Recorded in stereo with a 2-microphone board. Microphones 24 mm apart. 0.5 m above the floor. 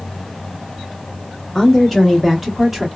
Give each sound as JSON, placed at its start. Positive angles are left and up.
{"t": 1.6, "sound": "a woman speaking", "side_deg": 0, "distance_m": 1.2}